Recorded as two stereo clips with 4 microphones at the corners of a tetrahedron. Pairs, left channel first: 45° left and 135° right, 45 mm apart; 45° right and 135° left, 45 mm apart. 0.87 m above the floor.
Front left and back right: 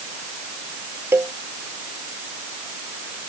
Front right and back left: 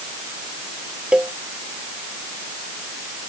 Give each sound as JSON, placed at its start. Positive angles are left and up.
{"t": 1.1, "sound": "a cowbell", "azimuth_deg": -160}